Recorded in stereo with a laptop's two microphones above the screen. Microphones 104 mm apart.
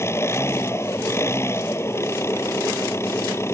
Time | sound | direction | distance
0.0 | an engine running | 25° left (ahead or behind) | ?